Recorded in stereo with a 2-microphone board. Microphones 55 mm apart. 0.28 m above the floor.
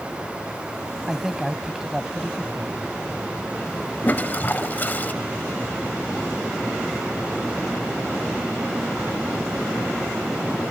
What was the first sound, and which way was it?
A man speaking, 10° right (ahead or behind).